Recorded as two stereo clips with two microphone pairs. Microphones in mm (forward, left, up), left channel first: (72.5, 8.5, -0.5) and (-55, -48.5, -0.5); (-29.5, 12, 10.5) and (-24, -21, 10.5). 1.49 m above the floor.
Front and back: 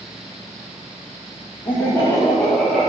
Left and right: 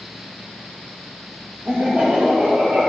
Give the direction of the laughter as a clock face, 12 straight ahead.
1 o'clock.